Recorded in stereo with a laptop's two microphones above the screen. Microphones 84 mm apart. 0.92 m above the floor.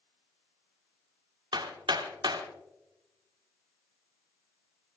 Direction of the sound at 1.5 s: 70° right (ahead or behind).